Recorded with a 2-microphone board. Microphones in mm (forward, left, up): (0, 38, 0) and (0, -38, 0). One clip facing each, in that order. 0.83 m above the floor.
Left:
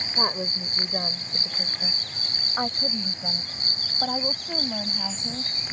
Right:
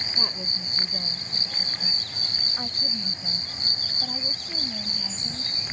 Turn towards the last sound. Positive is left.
turn(degrees=55)  # may be behind; listen again after turning